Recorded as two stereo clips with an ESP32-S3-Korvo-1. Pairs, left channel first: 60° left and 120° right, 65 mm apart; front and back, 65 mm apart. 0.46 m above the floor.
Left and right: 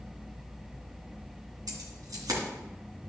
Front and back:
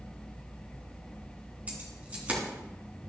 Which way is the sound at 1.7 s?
115° right.